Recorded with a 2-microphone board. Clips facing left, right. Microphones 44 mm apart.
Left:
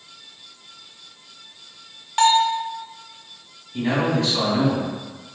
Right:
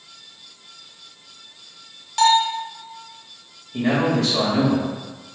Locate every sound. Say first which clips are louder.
2.2 s a bell: even; 25° left (ahead or behind), 0.7 m
3.7 s a man speaking: right 2 dB; 60° right (ahead or behind), 2.0 m